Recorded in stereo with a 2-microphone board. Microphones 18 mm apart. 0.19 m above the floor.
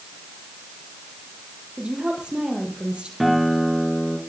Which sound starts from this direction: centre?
A guitar, at 3.2 s.